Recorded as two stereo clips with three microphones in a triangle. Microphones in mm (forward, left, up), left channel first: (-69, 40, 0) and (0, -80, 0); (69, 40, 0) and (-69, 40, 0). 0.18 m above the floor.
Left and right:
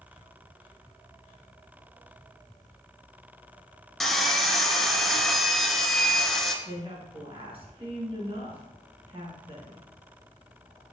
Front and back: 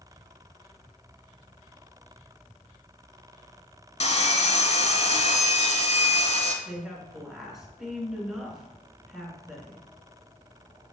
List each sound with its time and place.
4.0 s sawing: 30° left, 0.9 m
6.7 s a woman speaking: 95° right, 2 m